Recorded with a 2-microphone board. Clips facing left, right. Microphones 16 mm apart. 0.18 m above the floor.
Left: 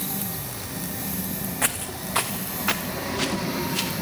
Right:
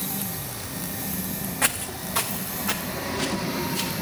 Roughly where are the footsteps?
Centre.